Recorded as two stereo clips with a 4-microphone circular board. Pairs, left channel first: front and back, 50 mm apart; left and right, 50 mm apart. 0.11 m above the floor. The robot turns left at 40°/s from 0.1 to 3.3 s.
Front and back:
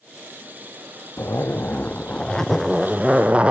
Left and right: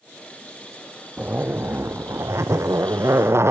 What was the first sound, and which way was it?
A zipper, 30° right.